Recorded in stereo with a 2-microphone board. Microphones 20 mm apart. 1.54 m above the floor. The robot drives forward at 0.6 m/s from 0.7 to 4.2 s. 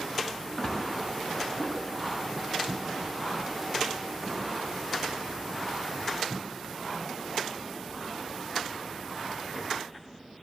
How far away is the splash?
About 1.5 m.